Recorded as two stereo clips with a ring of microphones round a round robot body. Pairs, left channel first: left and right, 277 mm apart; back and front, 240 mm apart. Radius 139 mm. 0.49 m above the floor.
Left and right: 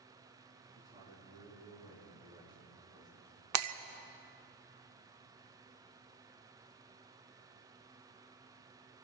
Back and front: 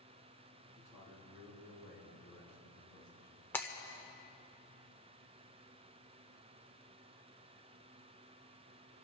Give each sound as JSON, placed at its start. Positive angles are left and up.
{"t": 0.8, "sound": "a man speaking", "azimuth_deg": -155, "distance_m": 6.5}
{"t": 3.5, "sound": "breaking glass", "azimuth_deg": -100, "distance_m": 0.7}